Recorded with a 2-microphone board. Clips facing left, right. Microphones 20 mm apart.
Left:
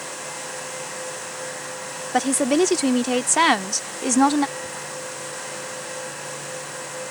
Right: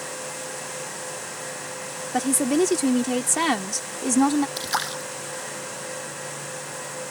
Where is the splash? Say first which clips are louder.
Right 5 dB; 85° right.